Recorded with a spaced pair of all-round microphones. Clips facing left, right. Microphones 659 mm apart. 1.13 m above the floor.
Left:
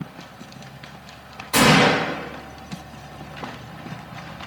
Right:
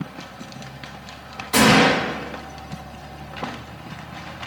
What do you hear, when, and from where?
1.5 s a gunshot: 45° right (ahead or behind), 1.5 m